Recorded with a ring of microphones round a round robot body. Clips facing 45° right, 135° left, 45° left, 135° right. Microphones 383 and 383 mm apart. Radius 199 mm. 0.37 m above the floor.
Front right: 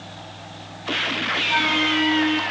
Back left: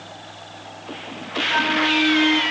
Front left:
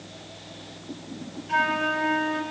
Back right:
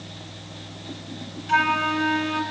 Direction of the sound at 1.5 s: 115° right.